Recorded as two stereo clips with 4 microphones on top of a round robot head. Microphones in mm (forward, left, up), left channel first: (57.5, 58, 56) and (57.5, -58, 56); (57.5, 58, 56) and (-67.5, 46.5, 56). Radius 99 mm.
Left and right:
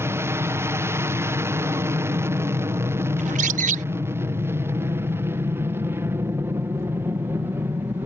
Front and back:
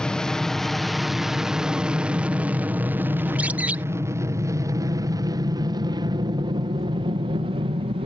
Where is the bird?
95° right.